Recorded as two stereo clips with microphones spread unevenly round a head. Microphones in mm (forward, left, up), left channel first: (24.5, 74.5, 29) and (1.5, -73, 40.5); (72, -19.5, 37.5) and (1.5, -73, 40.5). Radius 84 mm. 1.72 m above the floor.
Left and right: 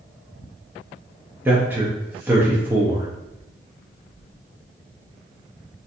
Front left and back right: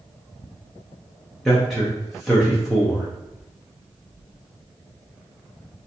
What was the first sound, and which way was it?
A man speaking, 60° right.